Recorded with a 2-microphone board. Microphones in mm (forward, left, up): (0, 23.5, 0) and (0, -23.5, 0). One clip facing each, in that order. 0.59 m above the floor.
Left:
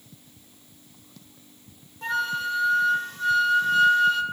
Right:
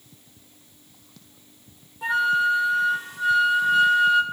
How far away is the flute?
About 1.9 m.